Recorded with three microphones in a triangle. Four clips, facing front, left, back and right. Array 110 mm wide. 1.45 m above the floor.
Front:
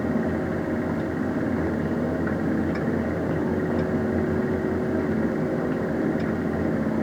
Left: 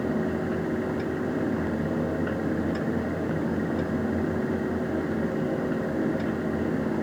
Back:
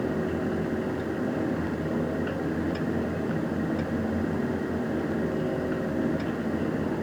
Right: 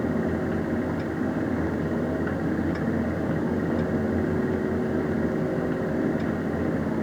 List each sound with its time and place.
Only background noise.